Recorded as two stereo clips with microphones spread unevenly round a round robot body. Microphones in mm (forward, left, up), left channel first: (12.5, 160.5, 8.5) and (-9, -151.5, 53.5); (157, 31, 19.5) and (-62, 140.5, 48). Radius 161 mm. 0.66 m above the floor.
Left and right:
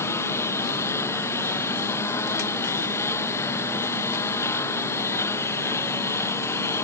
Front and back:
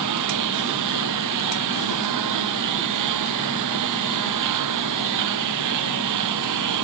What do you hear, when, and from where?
0.0 s a lawn mower: 170° left